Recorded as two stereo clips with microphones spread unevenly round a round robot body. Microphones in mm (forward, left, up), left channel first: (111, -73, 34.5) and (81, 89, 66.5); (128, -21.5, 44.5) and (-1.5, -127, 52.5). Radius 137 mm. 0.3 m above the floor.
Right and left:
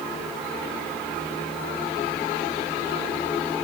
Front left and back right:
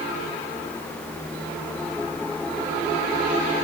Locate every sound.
Only background noise.